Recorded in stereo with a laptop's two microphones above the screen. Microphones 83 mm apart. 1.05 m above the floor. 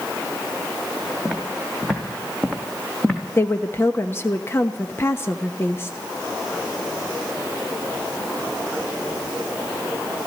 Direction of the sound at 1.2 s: 5° left (ahead or behind).